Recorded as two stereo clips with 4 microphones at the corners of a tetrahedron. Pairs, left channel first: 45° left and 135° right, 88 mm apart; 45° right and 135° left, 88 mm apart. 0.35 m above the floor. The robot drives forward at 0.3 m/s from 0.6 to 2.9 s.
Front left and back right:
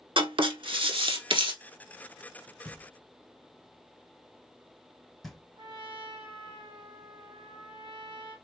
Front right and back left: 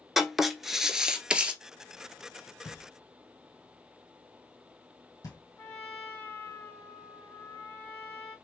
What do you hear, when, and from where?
0.2 s writing: 140° right, 0.8 m; by 1.5 s 150° right, 1.0 m
2.6 s knocking: 40° right, 1.5 m
5.6 s a trumpet: 105° right, 2.5 m